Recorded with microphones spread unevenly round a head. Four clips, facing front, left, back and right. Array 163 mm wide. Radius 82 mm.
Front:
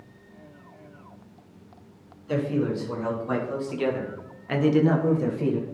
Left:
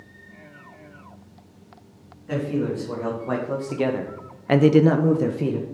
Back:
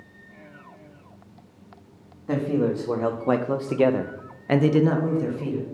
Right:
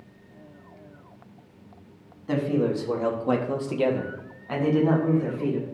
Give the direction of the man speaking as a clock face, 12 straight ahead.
5 o'clock.